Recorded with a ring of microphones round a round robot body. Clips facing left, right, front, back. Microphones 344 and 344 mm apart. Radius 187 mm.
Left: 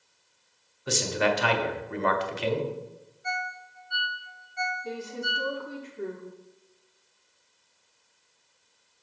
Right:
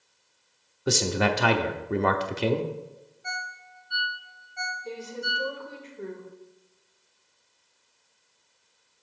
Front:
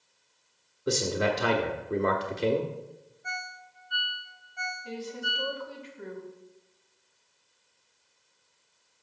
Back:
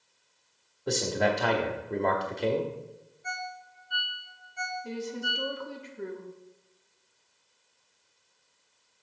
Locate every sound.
0.9 s a man speaking: 75° right, 0.8 m
3.2 s a ringtone: 130° right, 0.9 m
4.8 s a woman speaking: 160° left, 1.4 m